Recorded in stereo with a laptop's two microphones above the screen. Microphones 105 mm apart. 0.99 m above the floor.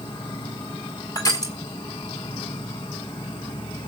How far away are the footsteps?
No footsteps in this recording.